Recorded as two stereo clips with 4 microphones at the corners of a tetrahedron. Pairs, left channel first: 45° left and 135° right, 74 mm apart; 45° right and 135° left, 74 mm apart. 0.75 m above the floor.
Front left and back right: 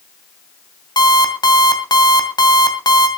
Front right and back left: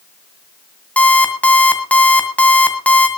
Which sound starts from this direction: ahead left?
An alarm clock, at 1.0 s.